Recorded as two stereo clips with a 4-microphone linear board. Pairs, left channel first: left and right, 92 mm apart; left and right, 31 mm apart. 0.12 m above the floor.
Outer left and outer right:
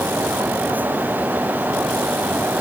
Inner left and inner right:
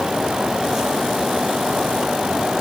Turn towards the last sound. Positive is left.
No sound to turn to.